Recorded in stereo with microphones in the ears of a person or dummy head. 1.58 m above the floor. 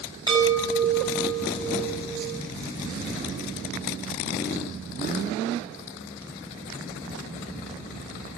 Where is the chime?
25° right (ahead or behind), 7 m.